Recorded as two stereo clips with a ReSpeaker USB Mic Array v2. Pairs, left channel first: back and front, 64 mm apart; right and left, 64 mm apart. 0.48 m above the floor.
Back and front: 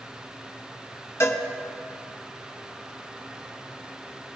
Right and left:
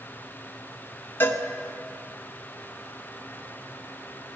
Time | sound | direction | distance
1.2 | a cowbell | 140° right | 1.1 m